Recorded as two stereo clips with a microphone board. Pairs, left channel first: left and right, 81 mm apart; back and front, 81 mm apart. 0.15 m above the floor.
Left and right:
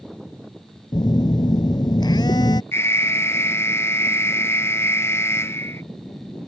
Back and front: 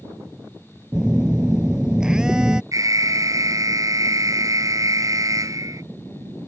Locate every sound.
0.9 s a phone buzzing: 80° left
2.7 s an alarm: 40° left